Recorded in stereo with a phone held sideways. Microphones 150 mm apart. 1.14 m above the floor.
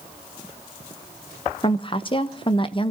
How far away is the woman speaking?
About 1.0 m.